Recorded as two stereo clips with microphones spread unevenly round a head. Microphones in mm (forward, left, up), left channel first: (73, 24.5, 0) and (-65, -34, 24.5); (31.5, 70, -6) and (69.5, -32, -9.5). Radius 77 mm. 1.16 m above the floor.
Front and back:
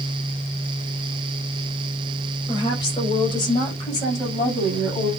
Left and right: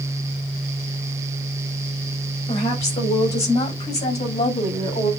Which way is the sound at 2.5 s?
85° left.